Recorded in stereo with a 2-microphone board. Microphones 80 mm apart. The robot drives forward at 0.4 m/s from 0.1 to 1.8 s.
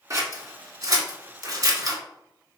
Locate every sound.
0.1 s scissors: 50° right (ahead or behind), 1.5 m